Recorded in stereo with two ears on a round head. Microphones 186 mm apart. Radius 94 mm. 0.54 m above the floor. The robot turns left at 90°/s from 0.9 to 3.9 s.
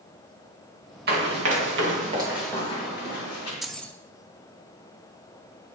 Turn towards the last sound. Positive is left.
turn(degrees=10)  # may be behind; listen again after turning